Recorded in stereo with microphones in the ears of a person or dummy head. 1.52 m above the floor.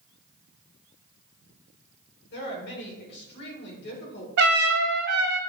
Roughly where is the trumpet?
Right.